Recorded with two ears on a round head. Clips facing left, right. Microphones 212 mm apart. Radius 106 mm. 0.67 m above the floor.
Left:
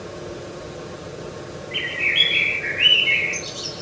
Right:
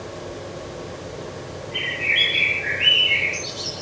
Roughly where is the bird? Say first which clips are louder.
Even; left.